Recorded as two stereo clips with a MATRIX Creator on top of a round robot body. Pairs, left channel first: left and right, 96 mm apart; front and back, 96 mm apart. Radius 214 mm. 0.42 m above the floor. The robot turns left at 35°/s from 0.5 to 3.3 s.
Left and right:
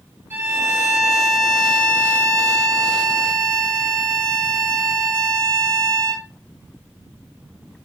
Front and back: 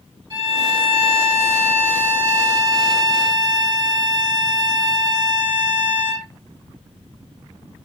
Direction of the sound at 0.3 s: 155° right.